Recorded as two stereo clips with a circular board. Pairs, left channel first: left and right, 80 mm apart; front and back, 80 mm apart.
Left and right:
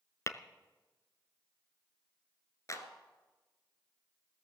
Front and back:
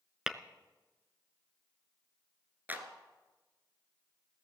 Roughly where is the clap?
Behind left.